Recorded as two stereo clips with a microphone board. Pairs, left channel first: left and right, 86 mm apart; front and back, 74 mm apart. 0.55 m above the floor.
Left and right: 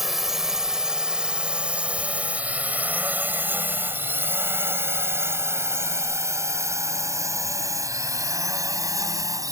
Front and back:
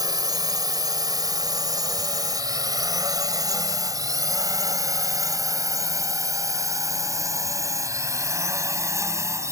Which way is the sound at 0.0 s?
Straight behind.